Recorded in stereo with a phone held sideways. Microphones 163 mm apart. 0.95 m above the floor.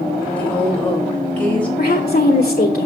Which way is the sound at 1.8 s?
60° left (ahead or behind).